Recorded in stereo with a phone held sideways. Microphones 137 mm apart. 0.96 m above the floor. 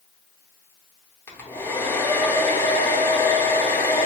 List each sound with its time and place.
1.3 s a hair dryer: 15° left (ahead or behind), 0.6 m